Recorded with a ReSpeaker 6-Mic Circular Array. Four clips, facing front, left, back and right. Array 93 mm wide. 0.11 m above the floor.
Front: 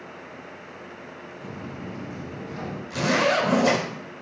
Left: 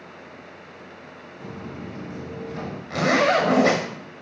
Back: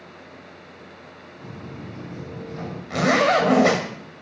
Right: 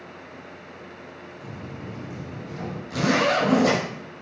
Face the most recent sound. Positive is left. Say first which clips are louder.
# left 2 dB, back 4 dB
turn(degrees=150)